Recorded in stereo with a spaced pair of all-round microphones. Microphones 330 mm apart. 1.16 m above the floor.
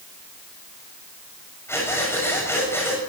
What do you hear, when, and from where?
1.7 s breathing: 10° left (ahead or behind), 7 m